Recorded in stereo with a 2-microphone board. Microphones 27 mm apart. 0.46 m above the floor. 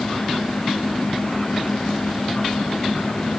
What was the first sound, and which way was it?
Only background noise.